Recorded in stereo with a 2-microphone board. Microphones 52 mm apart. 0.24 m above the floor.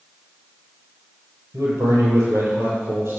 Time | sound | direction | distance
1.5 | a man speaking | 65° right (ahead or behind) | 5.5 m